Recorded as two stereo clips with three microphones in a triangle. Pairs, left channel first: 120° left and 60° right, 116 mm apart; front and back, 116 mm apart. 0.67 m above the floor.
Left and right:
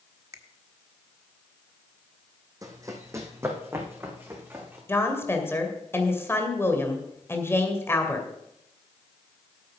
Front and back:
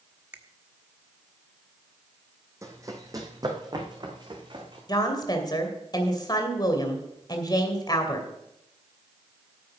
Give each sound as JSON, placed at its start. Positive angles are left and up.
{"t": 0.3, "sound": "a finger snap", "azimuth_deg": -110, "distance_m": 1.0}
{"t": 2.6, "sound": "running footsteps", "azimuth_deg": -115, "distance_m": 2.0}
{"t": 4.9, "sound": "a woman speaking", "azimuth_deg": 50, "distance_m": 2.0}